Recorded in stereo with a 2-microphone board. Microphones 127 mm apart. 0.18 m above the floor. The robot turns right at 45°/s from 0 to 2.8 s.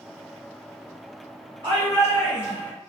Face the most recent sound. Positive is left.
turn(degrees=-10)